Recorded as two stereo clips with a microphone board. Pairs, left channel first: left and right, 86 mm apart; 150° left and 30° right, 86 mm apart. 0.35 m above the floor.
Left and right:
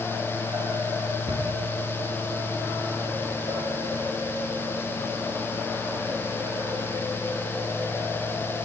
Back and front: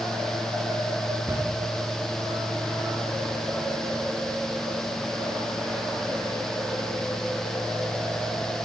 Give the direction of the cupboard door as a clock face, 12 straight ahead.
3 o'clock.